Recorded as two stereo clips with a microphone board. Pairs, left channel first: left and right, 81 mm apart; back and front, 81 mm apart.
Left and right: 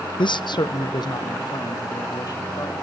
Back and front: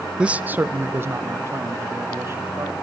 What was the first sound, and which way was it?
A man speaking, 80° left.